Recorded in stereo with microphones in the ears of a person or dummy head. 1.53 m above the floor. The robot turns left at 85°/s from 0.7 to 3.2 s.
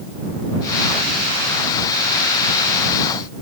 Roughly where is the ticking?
No ticking in this recording.